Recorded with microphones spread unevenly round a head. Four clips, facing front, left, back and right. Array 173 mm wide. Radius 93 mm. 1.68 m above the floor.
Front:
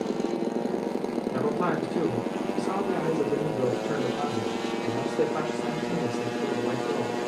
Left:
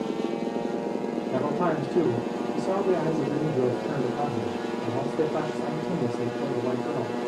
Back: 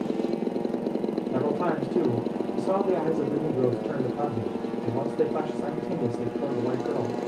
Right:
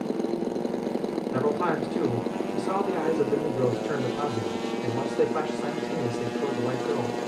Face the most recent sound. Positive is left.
turn(degrees=120)